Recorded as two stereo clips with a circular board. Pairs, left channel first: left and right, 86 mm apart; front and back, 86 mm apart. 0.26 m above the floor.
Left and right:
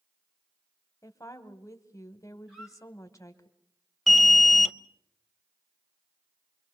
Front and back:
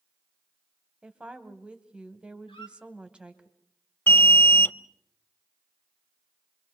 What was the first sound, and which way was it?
A woman speaking, 110° left.